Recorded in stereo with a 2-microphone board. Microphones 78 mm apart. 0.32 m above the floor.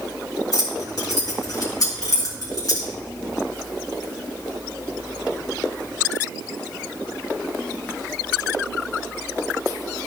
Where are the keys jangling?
50° left (ahead or behind), 2.5 m.